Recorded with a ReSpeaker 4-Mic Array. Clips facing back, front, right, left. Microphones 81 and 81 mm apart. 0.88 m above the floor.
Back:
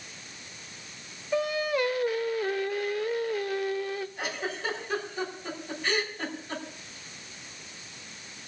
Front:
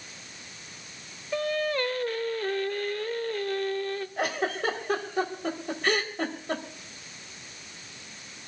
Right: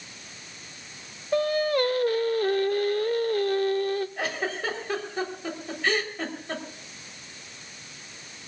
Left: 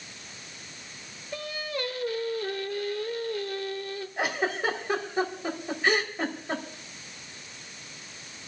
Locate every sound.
1.3 s singing: 100° right, 0.8 m
4.2 s a giggle: 20° left, 3 m